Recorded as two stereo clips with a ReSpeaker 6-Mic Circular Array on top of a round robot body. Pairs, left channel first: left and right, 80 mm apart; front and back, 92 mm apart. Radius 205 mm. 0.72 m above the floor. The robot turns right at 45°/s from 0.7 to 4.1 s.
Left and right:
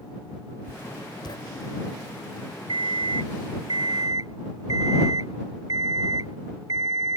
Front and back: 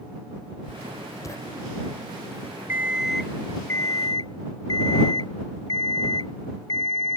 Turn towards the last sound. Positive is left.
turn(degrees=-45)